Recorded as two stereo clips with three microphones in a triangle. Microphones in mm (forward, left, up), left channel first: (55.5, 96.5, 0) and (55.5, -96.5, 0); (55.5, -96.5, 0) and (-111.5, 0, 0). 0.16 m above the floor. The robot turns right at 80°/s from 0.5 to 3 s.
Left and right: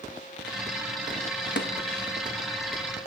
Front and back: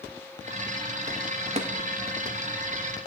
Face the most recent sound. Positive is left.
turn(degrees=-145)